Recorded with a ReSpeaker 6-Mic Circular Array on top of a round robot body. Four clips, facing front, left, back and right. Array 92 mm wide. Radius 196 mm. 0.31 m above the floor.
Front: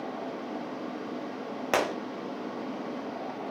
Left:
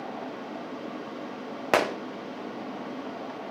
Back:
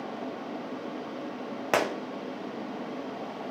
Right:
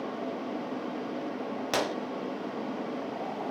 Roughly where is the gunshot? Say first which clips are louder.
Left 7 dB, back 1 dB; left.